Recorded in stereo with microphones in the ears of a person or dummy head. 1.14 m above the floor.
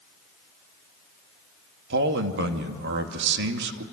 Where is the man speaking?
70° right (ahead or behind), 2 m.